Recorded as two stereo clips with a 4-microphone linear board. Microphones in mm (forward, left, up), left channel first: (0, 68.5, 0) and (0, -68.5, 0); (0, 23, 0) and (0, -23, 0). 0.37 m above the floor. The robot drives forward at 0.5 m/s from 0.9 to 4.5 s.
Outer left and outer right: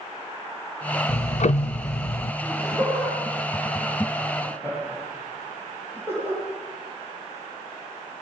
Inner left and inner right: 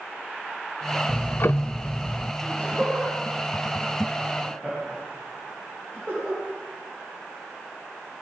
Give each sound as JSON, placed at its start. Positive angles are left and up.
{"t": 1.1, "sound": "ticking", "side_deg": 45, "distance_m": 0.5}
{"t": 2.4, "sound": "laughter", "side_deg": 15, "distance_m": 8.5}